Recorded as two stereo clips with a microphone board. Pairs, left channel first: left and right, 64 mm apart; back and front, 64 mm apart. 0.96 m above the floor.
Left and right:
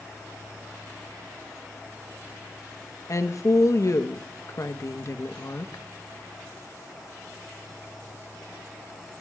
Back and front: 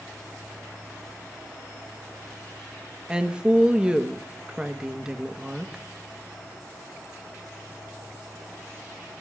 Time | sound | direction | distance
3.1 | a woman speaking | 75° left | 0.9 m